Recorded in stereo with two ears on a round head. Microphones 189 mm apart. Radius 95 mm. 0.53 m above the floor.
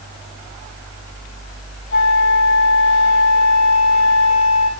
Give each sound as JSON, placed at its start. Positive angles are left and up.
{"t": 1.9, "sound": "a flute", "side_deg": 55, "distance_m": 2.0}